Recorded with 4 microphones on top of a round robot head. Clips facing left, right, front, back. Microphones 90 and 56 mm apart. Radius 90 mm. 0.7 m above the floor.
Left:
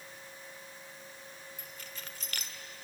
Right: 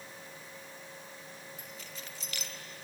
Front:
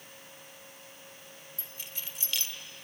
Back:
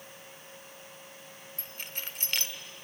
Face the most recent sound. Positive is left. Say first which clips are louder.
# right 1 dB, back 5 dB
turn(degrees=140)